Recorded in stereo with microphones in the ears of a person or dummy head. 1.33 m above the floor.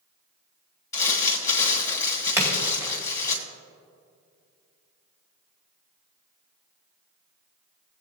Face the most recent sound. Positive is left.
turn(degrees=-15)  # may be behind; listen again after turning